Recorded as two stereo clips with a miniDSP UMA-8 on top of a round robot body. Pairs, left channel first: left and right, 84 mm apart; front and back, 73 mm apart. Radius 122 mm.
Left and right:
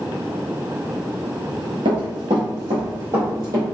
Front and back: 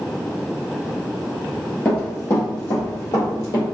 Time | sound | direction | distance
1.9 | running footsteps | 60° right | 1.1 m